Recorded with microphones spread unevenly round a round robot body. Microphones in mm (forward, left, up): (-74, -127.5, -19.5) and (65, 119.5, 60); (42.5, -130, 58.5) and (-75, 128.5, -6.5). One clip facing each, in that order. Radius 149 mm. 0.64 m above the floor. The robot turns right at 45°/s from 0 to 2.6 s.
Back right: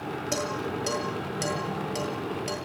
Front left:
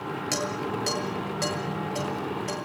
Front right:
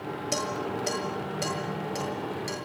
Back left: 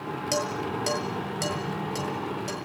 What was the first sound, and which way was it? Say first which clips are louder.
Dishes clattering: even, back left 2 dB; 120° left.